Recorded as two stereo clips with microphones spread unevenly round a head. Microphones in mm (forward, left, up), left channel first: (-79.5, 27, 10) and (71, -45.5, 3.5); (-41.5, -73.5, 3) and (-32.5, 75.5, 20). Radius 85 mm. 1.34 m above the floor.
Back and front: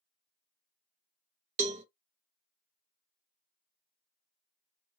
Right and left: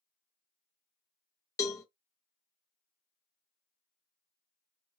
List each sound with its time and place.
1.6 s a cowbell: 20° right, 0.6 m